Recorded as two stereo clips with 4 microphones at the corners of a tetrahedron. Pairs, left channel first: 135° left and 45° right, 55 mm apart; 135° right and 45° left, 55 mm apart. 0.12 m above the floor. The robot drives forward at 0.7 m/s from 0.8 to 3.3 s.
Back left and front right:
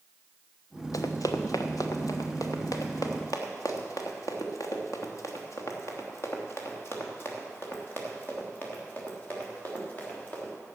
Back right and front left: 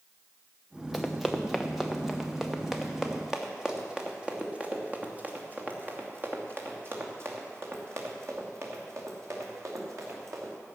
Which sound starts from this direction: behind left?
Running footsteps, at 0.9 s.